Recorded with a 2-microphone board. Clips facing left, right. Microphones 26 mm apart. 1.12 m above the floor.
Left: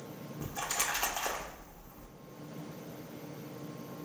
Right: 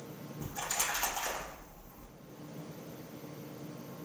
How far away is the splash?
About 0.6 m.